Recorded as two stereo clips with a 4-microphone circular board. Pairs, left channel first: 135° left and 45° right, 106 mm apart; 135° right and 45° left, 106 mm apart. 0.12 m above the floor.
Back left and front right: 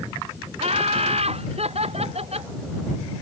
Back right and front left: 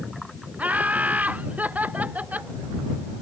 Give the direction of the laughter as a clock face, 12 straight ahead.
1 o'clock.